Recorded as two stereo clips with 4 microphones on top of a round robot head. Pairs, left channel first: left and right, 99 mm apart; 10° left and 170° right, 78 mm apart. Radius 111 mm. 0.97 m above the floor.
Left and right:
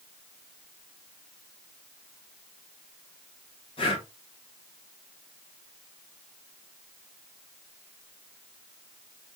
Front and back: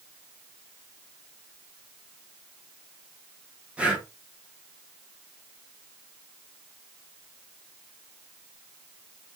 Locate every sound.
3.8 s breathing: 115° left, 2 m